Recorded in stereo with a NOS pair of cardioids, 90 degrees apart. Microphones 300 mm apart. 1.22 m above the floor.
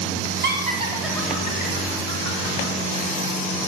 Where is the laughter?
35° right, 0.7 m; by 2.7 s 60° left, 1.2 m.